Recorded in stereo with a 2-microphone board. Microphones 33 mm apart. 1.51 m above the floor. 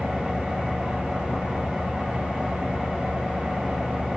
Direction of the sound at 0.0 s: 30° right (ahead or behind).